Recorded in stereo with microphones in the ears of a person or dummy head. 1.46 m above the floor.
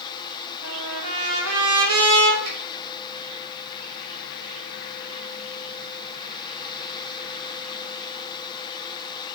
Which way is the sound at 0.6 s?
85° right.